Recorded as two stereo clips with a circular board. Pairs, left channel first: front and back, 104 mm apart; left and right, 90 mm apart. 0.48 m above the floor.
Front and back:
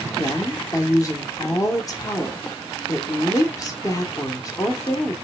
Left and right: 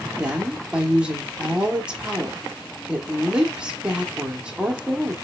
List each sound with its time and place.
0.2 s a woman speaking: 20° right, 1.0 m